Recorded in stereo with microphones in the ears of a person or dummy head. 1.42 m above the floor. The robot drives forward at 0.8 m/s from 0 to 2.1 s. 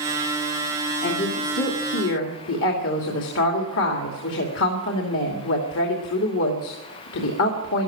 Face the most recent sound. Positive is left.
turn(degrees=65)  # may be behind; listen again after turning